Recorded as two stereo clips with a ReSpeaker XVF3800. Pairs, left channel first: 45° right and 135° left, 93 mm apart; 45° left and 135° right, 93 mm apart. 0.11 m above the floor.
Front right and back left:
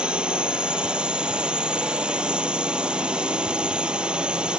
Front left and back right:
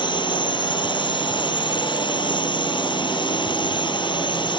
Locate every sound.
0.0 s a drone: 55° left